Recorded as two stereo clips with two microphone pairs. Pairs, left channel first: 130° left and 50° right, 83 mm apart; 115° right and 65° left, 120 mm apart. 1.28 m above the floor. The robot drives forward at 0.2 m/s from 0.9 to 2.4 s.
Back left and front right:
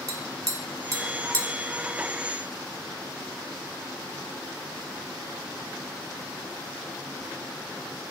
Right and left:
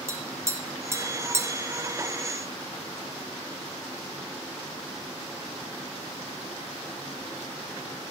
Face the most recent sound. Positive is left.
turn(degrees=-5)